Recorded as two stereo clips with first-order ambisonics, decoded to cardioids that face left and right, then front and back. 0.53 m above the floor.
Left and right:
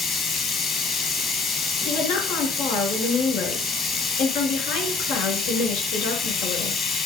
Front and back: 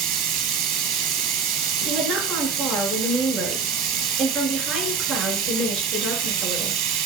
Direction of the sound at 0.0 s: 150° left.